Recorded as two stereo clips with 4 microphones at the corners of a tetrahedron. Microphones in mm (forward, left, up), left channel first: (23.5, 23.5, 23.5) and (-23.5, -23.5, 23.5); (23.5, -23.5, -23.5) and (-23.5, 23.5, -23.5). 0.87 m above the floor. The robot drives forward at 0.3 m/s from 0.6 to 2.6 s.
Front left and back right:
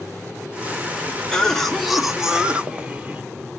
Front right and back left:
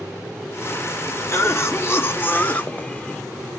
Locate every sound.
1.3 s a cough: 30° right, 0.7 m; by 3.2 s 85° right, 0.5 m